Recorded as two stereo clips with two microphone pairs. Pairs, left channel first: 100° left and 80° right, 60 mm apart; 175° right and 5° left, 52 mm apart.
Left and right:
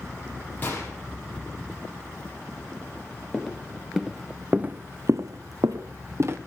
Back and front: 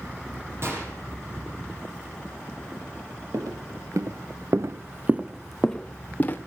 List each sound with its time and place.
0.6 s a gunshot: 40° left, 6 m
3.3 s footsteps: 15° left, 2 m; by 6.4 s 120° right, 1.5 m